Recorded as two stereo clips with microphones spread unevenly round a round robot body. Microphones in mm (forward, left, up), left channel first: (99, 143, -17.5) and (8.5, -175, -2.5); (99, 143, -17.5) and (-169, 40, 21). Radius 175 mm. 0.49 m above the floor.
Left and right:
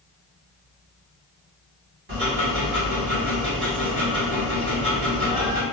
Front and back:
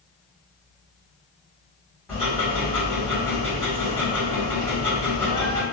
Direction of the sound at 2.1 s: 60° right.